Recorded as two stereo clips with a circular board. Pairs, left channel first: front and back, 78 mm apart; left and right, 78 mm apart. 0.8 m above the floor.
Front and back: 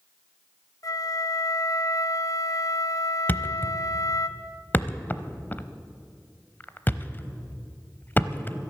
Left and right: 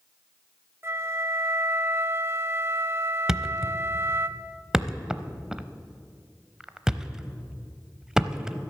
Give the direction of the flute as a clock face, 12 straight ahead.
1 o'clock.